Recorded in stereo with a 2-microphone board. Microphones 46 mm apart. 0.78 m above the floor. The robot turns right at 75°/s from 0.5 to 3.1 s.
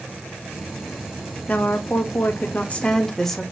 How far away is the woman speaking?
About 0.6 m.